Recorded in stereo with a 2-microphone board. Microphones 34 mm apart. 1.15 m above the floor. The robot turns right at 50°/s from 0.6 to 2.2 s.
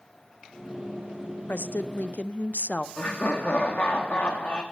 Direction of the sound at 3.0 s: 55° left (ahead or behind).